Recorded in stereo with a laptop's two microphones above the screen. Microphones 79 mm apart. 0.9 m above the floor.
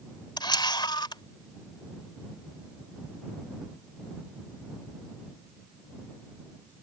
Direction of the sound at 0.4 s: 70° left (ahead or behind).